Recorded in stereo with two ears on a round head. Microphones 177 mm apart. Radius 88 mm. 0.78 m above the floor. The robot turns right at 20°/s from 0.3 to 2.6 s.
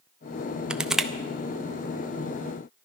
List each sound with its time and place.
0.7 s crushing: 5° right (ahead or behind), 0.6 m; by 1.1 s centre (ahead or behind), 0.6 m